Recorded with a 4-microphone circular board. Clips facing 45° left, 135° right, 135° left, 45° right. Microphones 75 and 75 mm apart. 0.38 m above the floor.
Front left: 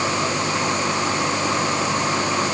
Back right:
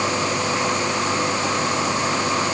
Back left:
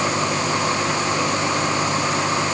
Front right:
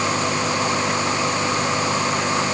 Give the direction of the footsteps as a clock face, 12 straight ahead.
I don't hear footsteps.